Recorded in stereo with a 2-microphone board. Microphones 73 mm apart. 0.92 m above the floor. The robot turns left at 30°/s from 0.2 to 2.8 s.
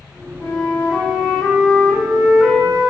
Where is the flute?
50° left, 1.9 m; by 2.9 s 25° right, 1.9 m.